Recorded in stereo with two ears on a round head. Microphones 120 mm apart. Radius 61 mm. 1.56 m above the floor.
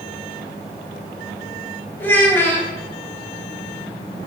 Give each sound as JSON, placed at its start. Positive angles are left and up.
{"t": 2.0, "sound": "a child speaking", "side_deg": 15, "distance_m": 1.0}